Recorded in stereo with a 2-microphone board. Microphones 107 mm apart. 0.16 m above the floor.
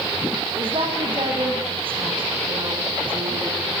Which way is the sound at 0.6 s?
55° right (ahead or behind).